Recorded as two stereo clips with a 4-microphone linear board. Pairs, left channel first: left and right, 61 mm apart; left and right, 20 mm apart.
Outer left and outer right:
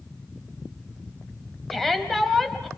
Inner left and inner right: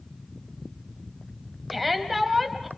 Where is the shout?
5° left (ahead or behind), 3 m.